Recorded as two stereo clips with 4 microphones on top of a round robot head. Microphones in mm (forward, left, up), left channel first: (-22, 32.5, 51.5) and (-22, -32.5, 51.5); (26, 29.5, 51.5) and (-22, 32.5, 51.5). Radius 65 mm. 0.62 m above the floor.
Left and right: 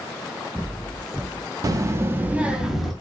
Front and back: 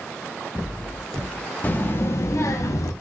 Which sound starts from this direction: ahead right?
A child speaking, at 1.6 s.